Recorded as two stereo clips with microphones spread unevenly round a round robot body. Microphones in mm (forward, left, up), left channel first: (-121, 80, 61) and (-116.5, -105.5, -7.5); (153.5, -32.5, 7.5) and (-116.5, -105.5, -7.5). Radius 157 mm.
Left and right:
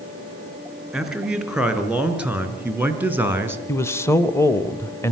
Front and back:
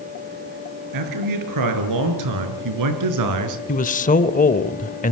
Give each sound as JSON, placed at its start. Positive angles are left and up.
{"t": 0.9, "sound": "a man speaking", "azimuth_deg": -170, "distance_m": 5.5}
{"t": 3.7, "sound": "a man speaking", "azimuth_deg": -15, "distance_m": 0.9}